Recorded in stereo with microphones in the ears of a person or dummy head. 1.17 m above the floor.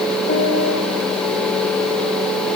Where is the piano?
50° left (ahead or behind), 1.7 m.